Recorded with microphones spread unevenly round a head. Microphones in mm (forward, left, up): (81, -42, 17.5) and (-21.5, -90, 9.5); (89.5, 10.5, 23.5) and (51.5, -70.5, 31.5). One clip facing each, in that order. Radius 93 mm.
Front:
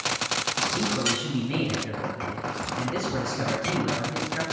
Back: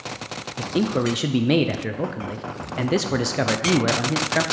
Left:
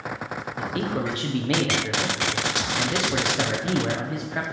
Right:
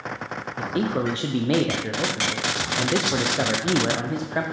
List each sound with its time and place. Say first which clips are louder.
0.6 s a man speaking: back 7 dB, right 3 dB; 175° left, 0.6 m